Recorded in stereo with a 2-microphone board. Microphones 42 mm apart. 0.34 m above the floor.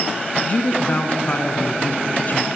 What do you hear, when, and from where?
0.5 s a woman speaking: 40° left (ahead or behind), 3 m; by 2.5 s 45° left (ahead or behind), 2 m